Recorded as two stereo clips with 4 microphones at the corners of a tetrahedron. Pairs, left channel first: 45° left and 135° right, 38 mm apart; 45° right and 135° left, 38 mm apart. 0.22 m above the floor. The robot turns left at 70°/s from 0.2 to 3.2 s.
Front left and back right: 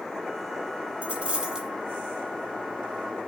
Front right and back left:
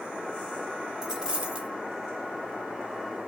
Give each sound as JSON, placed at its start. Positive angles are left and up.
{"t": 1.0, "sound": "a dropped coin", "azimuth_deg": -155, "distance_m": 0.7}